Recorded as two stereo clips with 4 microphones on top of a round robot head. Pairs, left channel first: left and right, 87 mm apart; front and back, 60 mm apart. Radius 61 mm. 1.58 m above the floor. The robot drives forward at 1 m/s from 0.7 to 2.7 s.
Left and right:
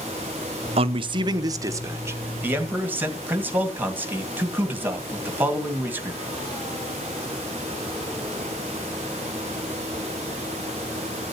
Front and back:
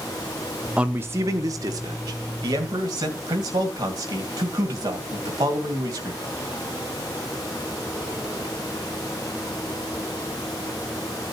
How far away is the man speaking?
About 0.8 m.